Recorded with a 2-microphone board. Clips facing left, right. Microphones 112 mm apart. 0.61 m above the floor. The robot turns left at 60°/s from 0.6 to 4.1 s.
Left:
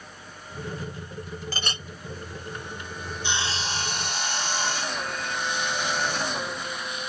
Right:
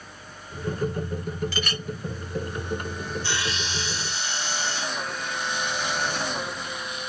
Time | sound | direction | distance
1.5 | a clink | 40° left (ahead or behind) | ?
3.2 | sawing | 160° left | ?